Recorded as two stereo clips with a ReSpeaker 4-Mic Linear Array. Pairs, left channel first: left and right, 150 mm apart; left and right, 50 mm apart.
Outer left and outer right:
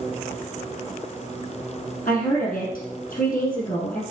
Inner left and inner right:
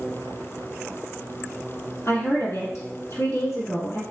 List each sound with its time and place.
2.0 s a woman speaking: 65° left (ahead or behind), 2.5 m